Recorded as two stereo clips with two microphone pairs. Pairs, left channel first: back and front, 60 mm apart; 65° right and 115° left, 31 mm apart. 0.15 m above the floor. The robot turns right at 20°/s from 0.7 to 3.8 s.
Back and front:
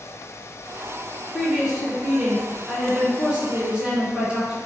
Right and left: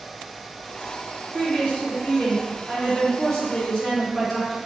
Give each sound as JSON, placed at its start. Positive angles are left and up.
{"t": 1.3, "sound": "a woman speaking", "azimuth_deg": -80, "distance_m": 1.2}